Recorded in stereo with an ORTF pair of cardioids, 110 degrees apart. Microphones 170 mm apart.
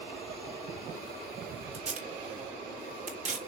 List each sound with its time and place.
1.7 s tape being pulled: 45° right, 3.5 m